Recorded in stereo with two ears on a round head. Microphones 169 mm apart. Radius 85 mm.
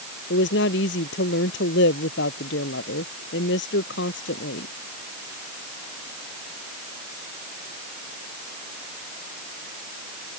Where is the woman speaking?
70° left (ahead or behind).